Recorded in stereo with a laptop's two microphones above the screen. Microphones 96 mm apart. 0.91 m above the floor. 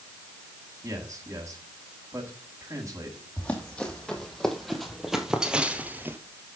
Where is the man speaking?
30° right (ahead or behind), 6.5 m.